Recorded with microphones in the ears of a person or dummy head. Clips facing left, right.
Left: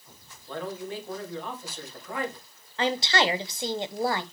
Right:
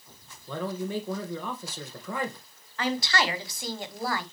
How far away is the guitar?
I don't hear a guitar.